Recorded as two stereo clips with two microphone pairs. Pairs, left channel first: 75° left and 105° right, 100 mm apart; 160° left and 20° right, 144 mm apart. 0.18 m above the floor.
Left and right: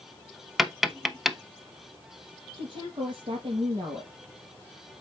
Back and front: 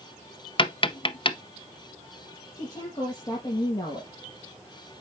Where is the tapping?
165° left, 0.7 m.